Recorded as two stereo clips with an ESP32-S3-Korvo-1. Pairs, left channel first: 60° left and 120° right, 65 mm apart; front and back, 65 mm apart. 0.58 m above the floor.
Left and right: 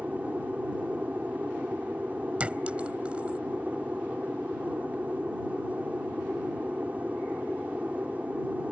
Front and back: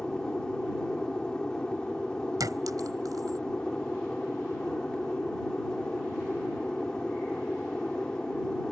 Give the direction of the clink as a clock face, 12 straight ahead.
6 o'clock.